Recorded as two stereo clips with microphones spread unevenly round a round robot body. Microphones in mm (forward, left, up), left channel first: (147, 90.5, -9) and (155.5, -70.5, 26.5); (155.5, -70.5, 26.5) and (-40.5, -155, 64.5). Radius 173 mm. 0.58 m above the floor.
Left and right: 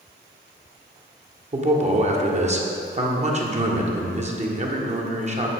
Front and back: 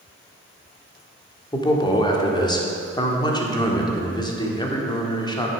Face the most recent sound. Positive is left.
turn(degrees=-40)